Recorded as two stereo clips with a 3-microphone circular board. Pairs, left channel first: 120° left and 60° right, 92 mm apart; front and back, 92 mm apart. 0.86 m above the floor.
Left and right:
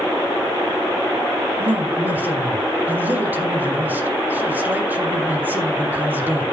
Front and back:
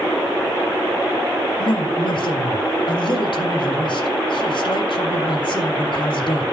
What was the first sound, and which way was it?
A woman speaking, 10° left.